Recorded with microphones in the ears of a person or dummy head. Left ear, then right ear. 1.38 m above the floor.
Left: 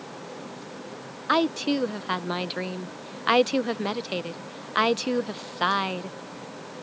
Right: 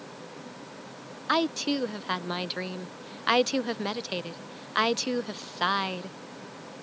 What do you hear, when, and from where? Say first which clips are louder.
1.3 s a woman speaking: left 3 dB; 5° right (ahead or behind)